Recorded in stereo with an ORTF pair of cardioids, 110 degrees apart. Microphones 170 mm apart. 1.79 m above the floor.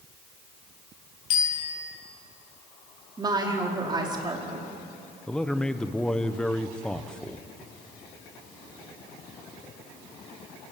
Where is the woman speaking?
25° right, 5 m.